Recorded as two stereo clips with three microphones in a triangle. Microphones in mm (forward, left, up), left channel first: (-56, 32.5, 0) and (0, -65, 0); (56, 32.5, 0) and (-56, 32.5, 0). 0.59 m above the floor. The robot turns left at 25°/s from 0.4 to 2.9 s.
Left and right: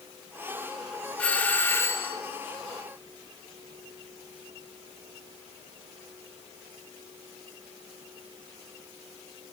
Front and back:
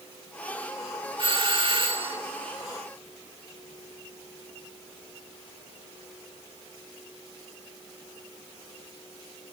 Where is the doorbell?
165° right, 2.0 m; by 2.2 s 170° left, 2.0 m.